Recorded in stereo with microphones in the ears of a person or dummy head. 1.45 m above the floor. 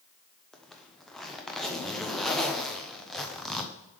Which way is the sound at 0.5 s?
5° left (ahead or behind).